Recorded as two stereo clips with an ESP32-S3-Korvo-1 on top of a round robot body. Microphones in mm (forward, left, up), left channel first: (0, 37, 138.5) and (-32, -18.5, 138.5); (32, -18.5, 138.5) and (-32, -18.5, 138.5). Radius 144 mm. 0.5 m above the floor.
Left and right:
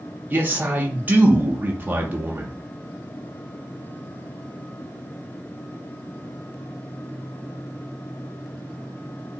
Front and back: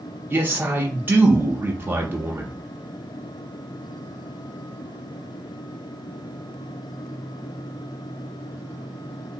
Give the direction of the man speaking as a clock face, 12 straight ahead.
5 o'clock.